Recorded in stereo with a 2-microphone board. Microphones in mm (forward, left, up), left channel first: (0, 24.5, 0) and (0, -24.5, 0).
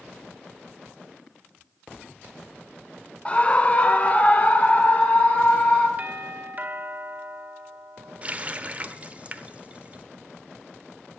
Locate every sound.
3.2 s a scream: 25° left (ahead or behind), 1.0 m; by 5.9 s 30° left (ahead or behind), 3 m
6.0 s a doorbell: 35° right (ahead or behind), 1.7 m
8.2 s a running tap: 30° right (ahead or behind), 0.8 m